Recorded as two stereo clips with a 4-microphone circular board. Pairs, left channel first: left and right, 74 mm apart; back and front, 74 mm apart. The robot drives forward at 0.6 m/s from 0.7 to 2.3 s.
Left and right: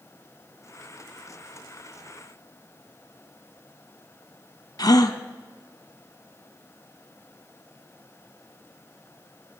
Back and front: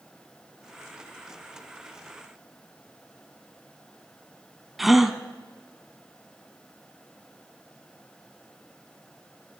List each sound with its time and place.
4.8 s a gasp: 90° left, 0.9 m